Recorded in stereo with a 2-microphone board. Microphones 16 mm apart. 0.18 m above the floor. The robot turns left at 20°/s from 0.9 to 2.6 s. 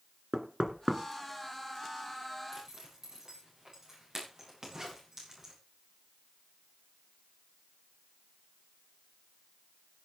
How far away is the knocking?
About 2 m.